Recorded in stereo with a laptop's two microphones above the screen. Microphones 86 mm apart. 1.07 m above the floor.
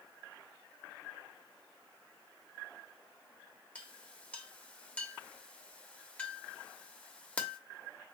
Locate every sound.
3.8 s a clink: 15° left (ahead or behind), 1.0 m